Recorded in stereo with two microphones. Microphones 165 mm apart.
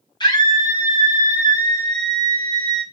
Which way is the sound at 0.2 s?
25° left (ahead or behind).